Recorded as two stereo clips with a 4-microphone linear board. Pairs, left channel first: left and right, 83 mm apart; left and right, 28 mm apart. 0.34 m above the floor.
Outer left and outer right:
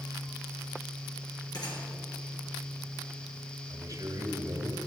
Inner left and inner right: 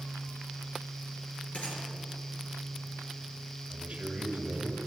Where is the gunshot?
55° left (ahead or behind), 4.5 m.